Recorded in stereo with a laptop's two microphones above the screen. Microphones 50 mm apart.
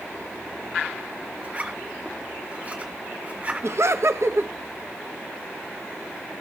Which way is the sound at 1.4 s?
30° right (ahead or behind).